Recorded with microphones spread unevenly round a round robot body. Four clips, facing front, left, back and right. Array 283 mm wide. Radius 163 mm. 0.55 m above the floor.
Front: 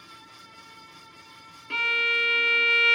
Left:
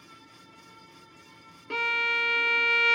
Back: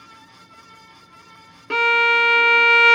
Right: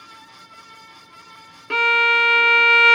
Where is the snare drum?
No snare drum in this recording.